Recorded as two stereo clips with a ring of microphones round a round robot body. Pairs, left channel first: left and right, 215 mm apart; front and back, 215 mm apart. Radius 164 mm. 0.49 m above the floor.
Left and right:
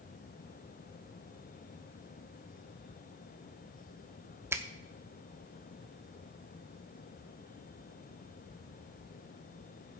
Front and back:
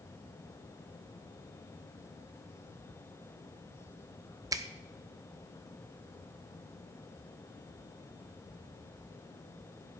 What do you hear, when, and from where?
4.5 s a finger snap: 145° right, 0.6 m